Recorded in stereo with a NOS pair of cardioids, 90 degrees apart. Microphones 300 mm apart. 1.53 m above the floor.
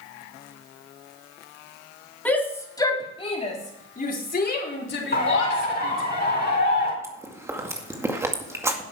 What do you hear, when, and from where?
2.2 s a shout: 5° left, 4 m; by 6.1 s 50° left, 5.5 m
5.1 s a bird: 30° left, 4.5 m
7.0 s chewing: 10° right, 2 m